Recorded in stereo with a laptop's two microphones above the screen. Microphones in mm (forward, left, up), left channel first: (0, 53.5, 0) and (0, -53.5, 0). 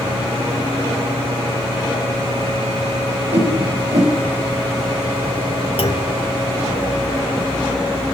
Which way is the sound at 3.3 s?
80° right.